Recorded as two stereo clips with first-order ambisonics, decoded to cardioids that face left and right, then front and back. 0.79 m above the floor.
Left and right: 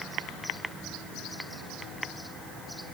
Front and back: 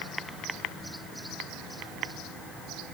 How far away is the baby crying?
I don't hear a baby crying.